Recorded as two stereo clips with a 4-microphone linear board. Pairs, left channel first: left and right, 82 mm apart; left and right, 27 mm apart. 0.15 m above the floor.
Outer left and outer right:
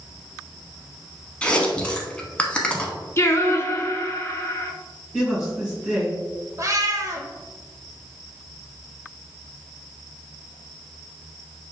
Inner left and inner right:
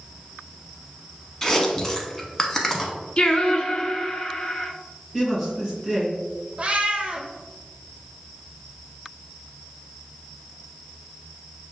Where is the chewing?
15° left (ahead or behind), 0.7 m.